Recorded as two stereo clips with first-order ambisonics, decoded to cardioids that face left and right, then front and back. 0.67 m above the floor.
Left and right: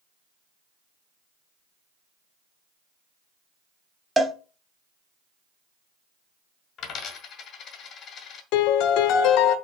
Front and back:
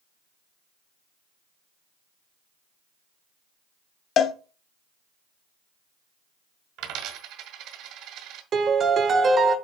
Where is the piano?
115° left, 0.6 m.